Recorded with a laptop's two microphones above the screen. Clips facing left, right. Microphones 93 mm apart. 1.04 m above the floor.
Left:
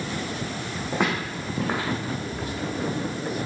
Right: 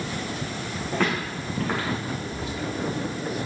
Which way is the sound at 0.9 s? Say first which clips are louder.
Even; 20° left (ahead or behind).